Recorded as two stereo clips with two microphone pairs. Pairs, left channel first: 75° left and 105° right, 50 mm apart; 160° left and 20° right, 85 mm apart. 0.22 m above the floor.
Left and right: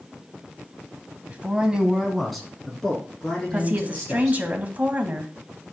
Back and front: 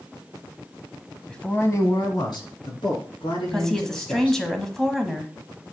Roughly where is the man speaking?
Behind right.